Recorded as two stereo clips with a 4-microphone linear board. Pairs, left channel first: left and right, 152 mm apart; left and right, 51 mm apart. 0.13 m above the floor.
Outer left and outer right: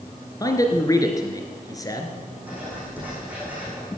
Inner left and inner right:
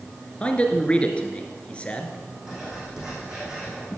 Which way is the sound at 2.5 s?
10° right (ahead or behind).